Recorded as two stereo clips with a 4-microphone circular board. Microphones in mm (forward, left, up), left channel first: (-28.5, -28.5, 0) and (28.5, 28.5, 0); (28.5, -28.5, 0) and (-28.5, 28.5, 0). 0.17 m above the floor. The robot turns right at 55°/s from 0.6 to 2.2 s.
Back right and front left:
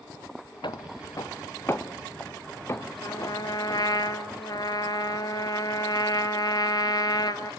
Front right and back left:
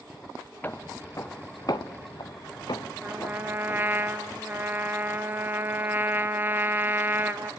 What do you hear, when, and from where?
0.6 s footsteps: 115° right, 1.6 m; by 4.0 s 105° right, 1.7 m
3.0 s a trumpet: 160° right, 1.1 m